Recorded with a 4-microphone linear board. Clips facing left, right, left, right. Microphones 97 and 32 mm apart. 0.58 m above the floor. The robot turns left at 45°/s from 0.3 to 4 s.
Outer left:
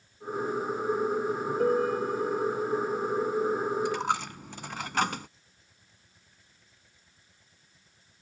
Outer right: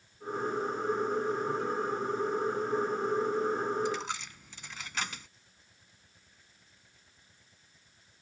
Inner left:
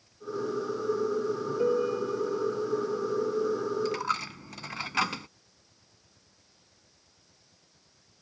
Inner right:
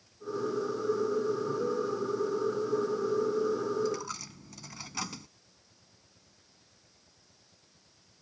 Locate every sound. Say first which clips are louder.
1.6 s a piano: outer left 7 dB, inner left 4 dB; 130° left; by 3.7 s 35° left
3.9 s a dropped coin: outer left 6 dB, inner left 5 dB; 60° left (ahead or behind); by 5.3 s 55° left (ahead or behind)